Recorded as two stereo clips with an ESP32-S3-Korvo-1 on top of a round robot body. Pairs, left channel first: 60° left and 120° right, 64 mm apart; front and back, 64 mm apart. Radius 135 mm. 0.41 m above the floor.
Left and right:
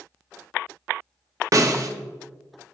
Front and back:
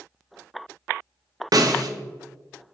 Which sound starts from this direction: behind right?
A snare drum, at 1.5 s.